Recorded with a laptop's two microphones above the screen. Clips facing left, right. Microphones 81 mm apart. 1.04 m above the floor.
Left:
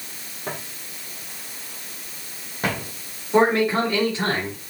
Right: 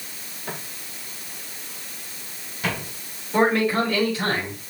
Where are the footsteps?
75° left (ahead or behind), 4.5 m; by 2.9 s 40° left (ahead or behind), 2.5 m.